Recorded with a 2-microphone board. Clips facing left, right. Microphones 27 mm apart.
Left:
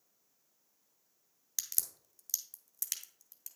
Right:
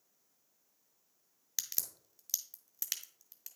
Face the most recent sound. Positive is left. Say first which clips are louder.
# even
turn(degrees=-15)  # may be behind; listen again after turning